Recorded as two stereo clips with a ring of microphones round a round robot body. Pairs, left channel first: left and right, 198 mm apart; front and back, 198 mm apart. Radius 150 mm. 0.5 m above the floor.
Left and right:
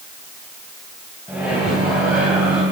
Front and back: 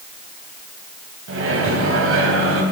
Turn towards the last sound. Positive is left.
turn(degrees=-175)